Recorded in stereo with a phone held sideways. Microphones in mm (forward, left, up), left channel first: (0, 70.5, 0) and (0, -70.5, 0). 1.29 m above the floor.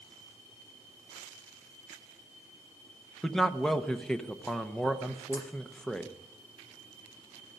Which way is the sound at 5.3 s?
20° left (ahead or behind).